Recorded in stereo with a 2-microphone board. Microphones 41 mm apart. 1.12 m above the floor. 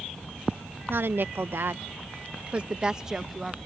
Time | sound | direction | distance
0.9 | a woman speaking | 65° right (ahead or behind) | ?